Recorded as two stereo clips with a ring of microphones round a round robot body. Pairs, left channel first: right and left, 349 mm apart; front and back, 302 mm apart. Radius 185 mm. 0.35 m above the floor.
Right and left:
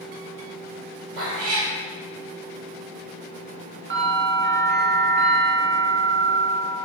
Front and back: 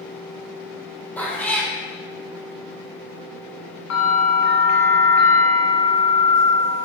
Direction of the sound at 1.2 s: 85° left.